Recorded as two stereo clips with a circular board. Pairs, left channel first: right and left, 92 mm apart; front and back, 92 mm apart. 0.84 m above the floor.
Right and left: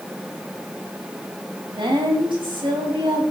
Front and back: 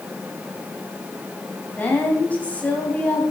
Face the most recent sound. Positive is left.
turn(degrees=70)